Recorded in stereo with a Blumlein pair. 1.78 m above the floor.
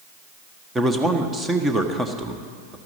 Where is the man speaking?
10° right, 1.4 m.